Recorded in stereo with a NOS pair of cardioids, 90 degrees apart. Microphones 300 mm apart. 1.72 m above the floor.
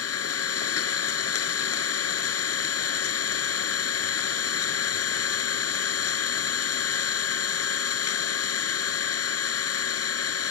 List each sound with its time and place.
0.0 s an engine running: 50° left